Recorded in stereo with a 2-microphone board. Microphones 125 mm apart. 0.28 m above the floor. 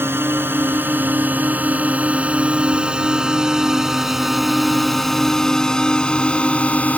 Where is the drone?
15° right (ahead or behind); by 7.0 s 10° left (ahead or behind).